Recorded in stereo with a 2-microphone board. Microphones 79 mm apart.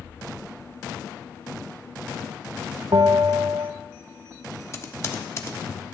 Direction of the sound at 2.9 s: 60° right (ahead or behind).